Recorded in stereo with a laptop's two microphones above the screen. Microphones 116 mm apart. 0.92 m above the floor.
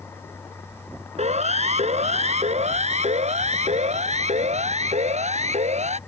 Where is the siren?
75° right (ahead or behind).